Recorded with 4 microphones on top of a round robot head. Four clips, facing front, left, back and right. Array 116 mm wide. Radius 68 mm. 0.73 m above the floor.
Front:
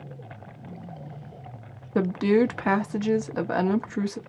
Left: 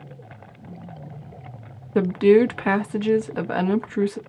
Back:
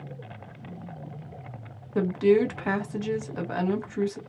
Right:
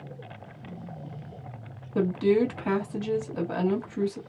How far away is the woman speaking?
About 0.8 m.